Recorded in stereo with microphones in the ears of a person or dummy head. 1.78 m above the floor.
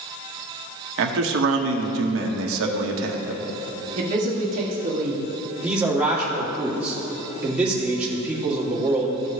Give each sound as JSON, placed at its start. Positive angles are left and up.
{"t": 1.0, "sound": "a man speaking", "side_deg": -70, "distance_m": 1.1}
{"t": 4.0, "sound": "a man speaking", "side_deg": -40, "distance_m": 1.6}
{"t": 5.6, "sound": "a man speaking", "side_deg": -5, "distance_m": 1.8}